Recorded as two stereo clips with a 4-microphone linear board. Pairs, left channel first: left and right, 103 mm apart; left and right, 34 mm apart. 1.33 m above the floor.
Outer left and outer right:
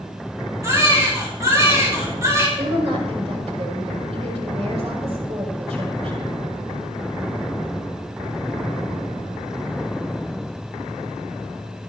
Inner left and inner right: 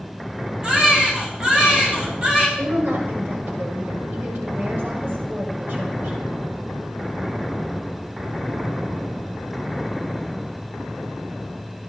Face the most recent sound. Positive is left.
turn(degrees=-85)